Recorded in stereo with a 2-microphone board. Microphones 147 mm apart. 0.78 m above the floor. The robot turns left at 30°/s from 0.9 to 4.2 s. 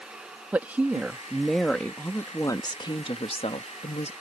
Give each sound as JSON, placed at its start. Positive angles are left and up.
{"t": 0.5, "sound": "a woman speaking", "azimuth_deg": -165}